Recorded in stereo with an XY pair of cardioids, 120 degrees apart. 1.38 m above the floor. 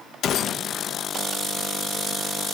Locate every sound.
0.2 s a gunshot: 55° left, 1.9 m